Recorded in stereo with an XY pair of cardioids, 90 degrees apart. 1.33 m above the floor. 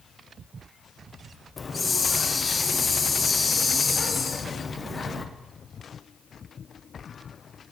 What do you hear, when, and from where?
1.6 s a hiss: 35° left, 0.6 m